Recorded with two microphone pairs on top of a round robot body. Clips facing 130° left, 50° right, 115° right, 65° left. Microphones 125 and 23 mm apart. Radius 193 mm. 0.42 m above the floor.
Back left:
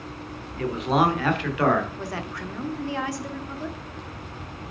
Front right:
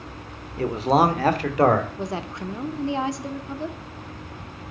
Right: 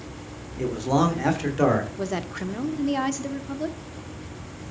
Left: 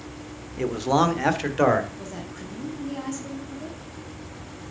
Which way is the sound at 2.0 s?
110° right.